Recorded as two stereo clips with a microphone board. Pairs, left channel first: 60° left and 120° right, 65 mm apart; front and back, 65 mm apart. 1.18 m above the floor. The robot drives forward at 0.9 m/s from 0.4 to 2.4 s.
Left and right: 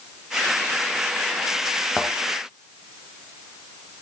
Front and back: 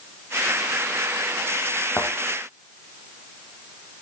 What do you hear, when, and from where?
2.0 s a thud: 20° right, 1.4 m; by 2.1 s 25° right, 1.3 m